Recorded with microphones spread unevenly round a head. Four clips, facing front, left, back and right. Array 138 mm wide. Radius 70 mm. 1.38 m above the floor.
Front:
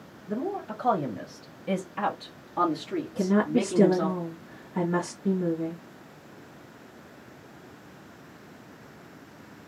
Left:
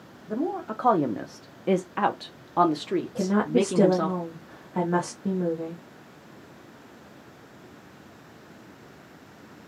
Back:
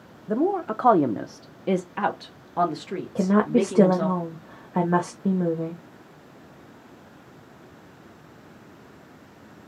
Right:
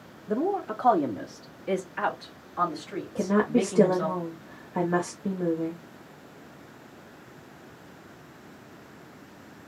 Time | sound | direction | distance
0.3 | a woman speaking | 165° right | 0.7 m
3.1 | a woman speaking | straight behind | 1.0 m